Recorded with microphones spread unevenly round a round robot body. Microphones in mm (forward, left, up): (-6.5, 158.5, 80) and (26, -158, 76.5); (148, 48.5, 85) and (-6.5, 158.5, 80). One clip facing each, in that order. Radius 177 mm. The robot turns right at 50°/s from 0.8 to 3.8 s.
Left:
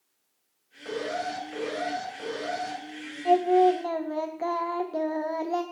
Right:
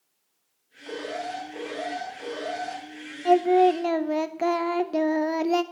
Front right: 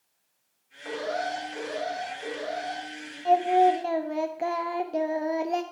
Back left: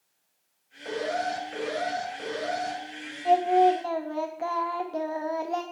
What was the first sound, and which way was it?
An alarm, 75° left.